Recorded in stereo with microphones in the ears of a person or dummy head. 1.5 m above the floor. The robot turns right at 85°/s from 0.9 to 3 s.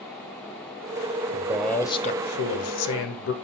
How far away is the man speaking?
About 0.9 m.